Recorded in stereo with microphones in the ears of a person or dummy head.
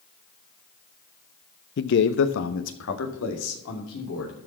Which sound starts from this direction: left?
A man speaking, at 1.8 s.